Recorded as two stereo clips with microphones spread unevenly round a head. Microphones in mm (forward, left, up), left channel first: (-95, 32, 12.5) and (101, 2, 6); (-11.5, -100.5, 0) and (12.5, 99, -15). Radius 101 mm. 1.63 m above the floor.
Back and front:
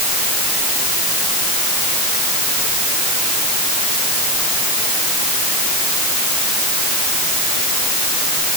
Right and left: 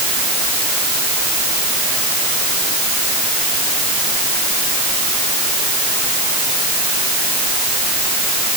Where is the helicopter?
No helicopter in this recording.